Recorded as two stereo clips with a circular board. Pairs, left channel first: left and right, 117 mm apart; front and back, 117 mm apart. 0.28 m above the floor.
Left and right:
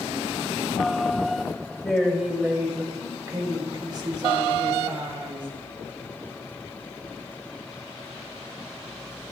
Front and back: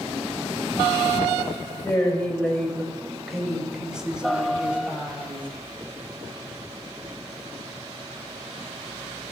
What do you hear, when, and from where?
1.8 s a woman speaking: 10° left, 1.5 m; by 5.5 s 110° right, 2.5 m